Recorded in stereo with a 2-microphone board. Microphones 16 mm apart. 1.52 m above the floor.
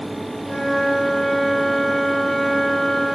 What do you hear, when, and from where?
0.4 s a flute: 30° left (ahead or behind), 8 m